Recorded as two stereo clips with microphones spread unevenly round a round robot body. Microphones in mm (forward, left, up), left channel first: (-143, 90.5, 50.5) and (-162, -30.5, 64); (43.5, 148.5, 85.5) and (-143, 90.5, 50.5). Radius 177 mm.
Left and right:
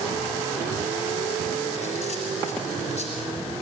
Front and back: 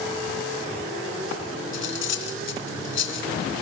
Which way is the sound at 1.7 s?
40° left.